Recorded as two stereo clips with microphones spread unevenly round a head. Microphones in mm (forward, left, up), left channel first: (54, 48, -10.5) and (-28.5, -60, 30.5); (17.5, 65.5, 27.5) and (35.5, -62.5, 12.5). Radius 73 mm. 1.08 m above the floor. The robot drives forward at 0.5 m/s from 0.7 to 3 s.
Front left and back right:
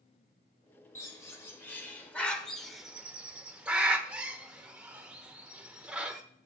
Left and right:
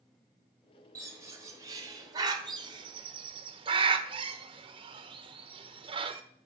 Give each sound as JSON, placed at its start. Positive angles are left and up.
{"t": 0.9, "sound": "a bird", "azimuth_deg": -15, "distance_m": 1.7}